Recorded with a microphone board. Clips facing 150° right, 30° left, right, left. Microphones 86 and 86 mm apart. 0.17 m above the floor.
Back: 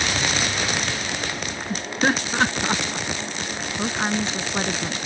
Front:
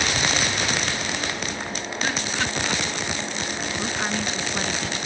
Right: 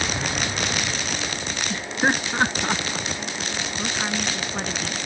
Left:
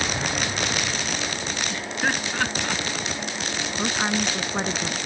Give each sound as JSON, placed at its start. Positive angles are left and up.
{"t": 1.7, "sound": "laughter", "azimuth_deg": -150}
{"t": 3.8, "sound": "a woman speaking", "azimuth_deg": 155}